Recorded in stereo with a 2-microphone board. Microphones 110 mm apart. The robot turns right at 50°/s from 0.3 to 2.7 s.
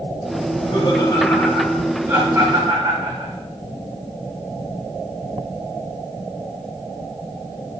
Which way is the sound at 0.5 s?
60° left (ahead or behind).